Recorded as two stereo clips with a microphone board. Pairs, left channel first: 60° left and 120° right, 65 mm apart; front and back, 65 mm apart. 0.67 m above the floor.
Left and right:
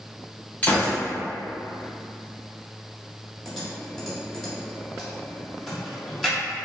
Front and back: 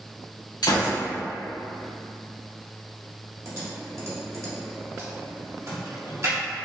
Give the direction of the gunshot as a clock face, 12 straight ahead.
12 o'clock.